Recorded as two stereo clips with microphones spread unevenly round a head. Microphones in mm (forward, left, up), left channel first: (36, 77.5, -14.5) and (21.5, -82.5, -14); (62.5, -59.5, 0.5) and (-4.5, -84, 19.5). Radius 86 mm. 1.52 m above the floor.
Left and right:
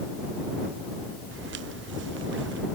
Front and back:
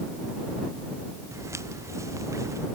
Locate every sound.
1.3 s footsteps: 115° right; by 2.7 s 120° right